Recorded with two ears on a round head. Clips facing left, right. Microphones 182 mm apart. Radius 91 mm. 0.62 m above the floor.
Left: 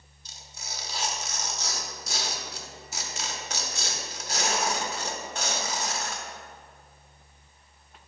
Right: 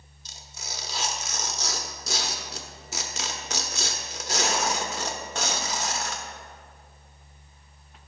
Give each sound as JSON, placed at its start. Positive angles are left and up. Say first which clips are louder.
{"t": 0.2, "sound": "tearing paper", "louder": "right 2 dB", "side_deg": -60, "distance_m": 0.8}